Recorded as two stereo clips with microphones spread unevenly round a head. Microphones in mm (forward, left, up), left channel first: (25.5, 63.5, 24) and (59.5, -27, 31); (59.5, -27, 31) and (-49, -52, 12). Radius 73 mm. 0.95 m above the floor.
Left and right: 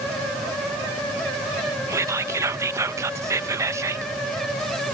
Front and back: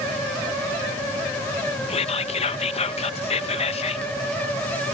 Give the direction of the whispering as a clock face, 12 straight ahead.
12 o'clock.